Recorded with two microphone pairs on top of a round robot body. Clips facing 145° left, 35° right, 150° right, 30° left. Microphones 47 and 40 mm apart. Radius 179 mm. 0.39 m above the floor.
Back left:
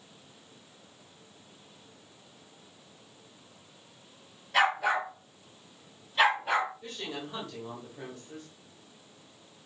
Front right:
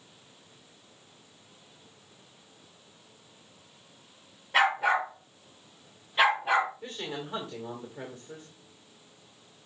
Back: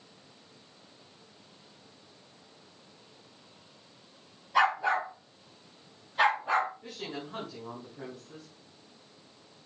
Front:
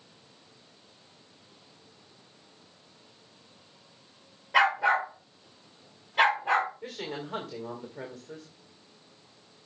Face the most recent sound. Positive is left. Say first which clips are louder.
# front right 2 dB, front 3 dB
turn(degrees=30)